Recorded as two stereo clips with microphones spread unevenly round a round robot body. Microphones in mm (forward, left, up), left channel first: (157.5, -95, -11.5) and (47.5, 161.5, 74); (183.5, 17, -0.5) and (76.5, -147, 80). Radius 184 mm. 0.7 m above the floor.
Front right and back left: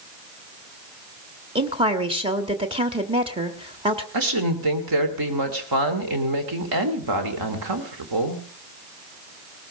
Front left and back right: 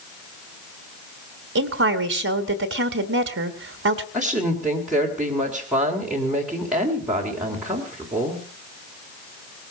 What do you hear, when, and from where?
1.6 s a woman speaking: 165° right, 1.2 m
4.1 s a woman speaking: 145° left, 2.5 m